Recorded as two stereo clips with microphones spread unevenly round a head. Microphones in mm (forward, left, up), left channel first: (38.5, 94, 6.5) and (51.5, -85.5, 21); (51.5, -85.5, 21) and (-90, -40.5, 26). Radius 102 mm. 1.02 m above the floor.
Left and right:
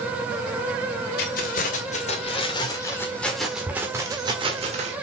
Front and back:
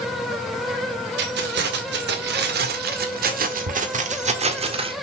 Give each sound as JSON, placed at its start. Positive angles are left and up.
{"t": 1.2, "sound": "keys jangling", "azimuth_deg": 140, "distance_m": 2.0}